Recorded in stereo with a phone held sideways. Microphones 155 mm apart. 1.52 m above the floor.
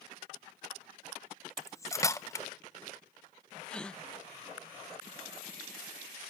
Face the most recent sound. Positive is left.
turn(degrees=5)  # may be behind; listen again after turning